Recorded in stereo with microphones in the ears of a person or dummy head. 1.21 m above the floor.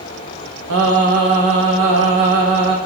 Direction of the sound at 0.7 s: 75° right (ahead or behind).